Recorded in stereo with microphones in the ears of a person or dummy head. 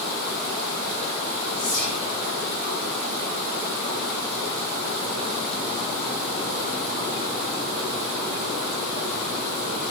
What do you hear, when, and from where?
1.6 s whispering: 70° left (ahead or behind), 2.5 m